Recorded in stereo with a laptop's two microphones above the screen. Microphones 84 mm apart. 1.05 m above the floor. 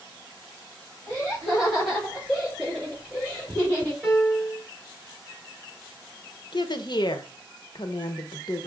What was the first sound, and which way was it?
Laughter, 10° left (ahead or behind).